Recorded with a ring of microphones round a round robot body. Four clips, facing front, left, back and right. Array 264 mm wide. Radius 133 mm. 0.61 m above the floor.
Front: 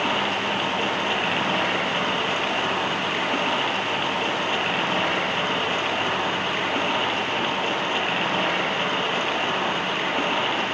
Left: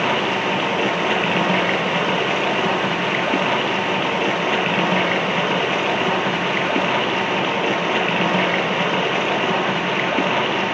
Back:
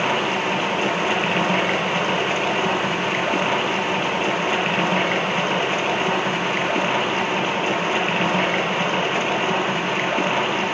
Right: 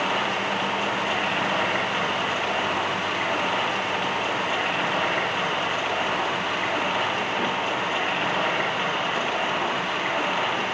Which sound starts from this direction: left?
Running water, at 0.0 s.